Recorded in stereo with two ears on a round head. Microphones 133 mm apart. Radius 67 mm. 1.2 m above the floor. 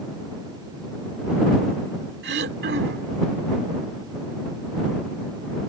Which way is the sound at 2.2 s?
85° right.